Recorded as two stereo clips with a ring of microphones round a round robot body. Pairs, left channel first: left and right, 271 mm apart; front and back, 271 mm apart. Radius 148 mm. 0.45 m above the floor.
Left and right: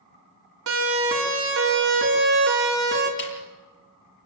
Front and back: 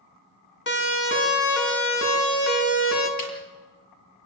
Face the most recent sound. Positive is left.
turn(degrees=40)